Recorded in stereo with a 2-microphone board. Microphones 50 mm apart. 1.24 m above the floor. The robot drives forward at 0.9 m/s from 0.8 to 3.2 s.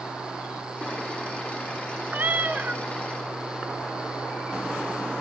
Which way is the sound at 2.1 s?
35° right (ahead or behind).